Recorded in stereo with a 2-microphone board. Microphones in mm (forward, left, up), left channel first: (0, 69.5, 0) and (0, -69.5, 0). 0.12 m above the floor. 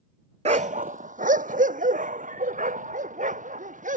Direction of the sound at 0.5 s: 60° right (ahead or behind).